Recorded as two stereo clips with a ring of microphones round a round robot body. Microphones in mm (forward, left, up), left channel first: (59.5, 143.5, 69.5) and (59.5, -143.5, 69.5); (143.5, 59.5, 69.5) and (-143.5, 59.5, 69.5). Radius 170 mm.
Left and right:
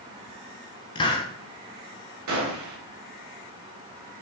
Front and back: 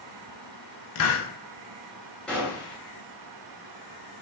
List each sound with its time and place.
0.9 s a hiss: 20° left, 0.5 m
2.3 s a gunshot: 85° right, 1.2 m